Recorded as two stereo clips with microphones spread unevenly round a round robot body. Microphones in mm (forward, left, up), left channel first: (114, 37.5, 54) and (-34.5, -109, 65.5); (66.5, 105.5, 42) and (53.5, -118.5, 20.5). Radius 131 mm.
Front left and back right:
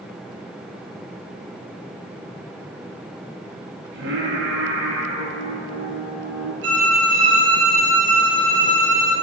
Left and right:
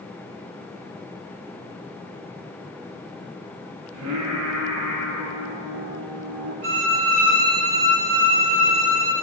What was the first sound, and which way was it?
Singing, 110° right.